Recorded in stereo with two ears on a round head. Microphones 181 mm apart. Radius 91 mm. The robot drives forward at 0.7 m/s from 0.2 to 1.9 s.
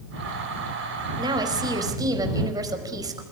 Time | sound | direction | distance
1.2 | a woman speaking | 20° right (ahead or behind) | 4 m